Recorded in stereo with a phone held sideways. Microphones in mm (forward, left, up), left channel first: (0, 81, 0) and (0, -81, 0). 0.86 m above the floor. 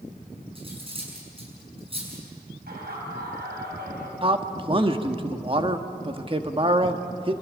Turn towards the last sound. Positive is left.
turn(degrees=-35)  # may be behind; listen again after turning